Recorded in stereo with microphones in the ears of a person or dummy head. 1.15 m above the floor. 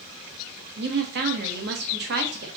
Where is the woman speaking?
55° right (ahead or behind), 0.8 m.